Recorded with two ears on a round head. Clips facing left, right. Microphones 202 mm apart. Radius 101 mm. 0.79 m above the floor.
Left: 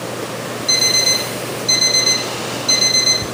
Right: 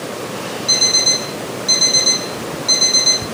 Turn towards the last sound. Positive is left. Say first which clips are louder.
# left 1 dB
turn(degrees=-15)  # may be behind; listen again after turning